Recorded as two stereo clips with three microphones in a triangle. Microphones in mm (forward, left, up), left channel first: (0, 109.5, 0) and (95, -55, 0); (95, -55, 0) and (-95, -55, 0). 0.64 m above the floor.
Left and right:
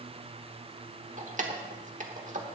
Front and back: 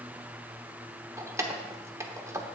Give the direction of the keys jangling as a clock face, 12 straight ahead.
4 o'clock.